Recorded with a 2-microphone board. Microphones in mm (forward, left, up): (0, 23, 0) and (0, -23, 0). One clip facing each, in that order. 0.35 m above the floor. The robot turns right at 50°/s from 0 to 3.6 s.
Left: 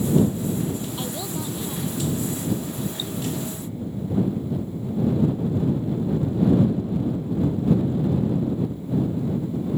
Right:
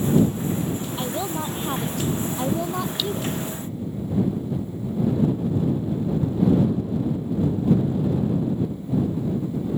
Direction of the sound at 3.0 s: 85° right.